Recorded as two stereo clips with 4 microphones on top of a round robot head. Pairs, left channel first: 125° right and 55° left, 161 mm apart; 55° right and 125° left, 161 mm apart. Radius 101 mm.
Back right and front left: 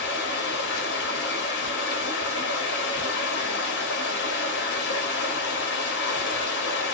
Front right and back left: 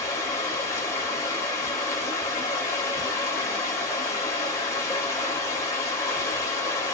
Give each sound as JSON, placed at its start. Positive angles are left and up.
{"t": 0.0, "sound": "running water", "azimuth_deg": -130, "distance_m": 0.8}